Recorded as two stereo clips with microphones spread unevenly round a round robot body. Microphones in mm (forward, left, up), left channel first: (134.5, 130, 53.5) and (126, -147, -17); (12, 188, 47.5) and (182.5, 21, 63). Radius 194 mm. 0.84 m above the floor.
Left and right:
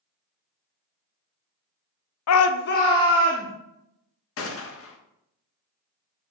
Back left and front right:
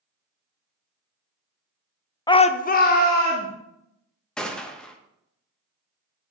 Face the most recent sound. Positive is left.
turn(degrees=55)